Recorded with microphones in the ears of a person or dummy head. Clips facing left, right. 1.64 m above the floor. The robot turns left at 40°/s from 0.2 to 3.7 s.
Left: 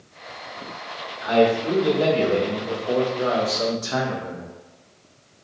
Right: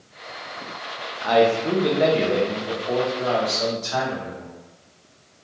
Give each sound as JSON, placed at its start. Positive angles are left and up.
{"t": 1.2, "sound": "a man speaking", "azimuth_deg": -125, "distance_m": 0.6}